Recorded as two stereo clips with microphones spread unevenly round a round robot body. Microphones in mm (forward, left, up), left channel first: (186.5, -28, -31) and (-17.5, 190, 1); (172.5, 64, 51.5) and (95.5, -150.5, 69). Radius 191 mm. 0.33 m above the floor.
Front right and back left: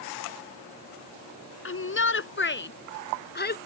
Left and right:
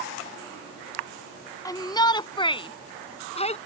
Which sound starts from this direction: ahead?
A shout, at 1.6 s.